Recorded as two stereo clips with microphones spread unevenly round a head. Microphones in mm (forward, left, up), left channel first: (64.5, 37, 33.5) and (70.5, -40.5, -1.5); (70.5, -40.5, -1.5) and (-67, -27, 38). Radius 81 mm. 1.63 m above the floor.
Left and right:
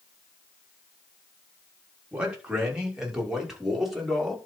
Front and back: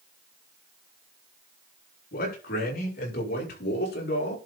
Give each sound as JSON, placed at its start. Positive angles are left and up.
{"t": 2.1, "sound": "a man speaking", "azimuth_deg": -10, "distance_m": 6.0}